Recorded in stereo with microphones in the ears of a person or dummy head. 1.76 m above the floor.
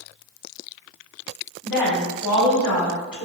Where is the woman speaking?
15° left (ahead or behind), 1.6 m.